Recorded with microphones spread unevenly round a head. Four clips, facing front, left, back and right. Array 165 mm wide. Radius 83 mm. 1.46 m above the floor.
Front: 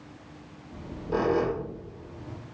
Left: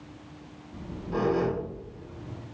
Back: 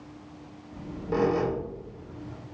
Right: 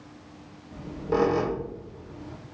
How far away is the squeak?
About 4 m.